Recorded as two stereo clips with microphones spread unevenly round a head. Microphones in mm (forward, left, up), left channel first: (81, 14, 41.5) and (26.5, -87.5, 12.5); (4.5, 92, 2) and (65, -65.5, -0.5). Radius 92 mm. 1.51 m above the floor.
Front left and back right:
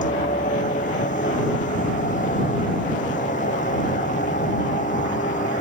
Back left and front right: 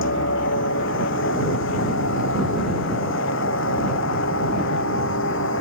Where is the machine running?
110° left.